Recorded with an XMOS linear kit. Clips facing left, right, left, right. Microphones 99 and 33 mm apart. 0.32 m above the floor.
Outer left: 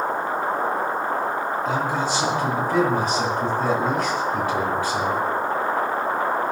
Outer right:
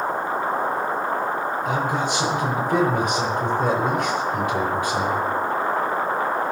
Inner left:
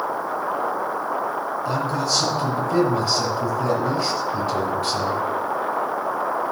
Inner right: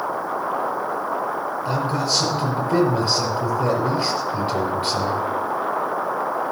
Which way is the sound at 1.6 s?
20° right (ahead or behind).